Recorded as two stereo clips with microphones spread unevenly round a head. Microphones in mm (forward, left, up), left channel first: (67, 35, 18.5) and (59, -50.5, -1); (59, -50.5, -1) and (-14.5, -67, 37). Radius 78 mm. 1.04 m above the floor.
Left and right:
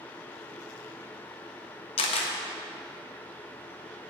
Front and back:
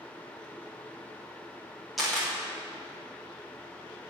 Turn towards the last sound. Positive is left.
turn(degrees=90)